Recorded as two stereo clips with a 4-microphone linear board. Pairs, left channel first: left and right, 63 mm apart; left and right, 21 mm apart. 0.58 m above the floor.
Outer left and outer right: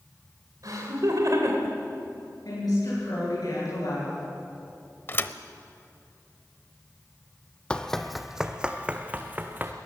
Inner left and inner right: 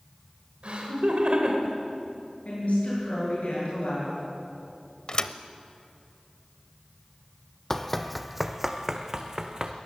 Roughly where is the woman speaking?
Left.